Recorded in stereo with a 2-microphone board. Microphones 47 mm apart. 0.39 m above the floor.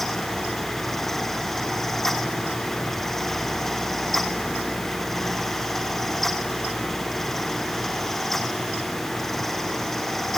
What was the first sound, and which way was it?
Only background noise.